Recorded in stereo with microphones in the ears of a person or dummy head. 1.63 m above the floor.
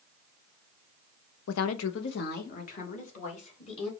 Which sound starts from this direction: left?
A woman speaking, at 1.5 s.